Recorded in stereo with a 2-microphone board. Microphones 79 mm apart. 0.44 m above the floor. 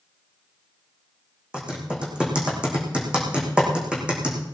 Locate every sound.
1.5 s typing on a keyboard: 10° right (ahead or behind), 5.5 m